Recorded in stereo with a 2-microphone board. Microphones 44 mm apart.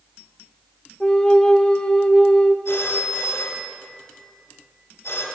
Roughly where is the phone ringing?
Left.